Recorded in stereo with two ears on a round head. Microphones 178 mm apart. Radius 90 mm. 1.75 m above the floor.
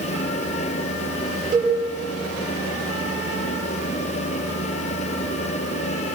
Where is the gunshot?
I don't hear a gunshot.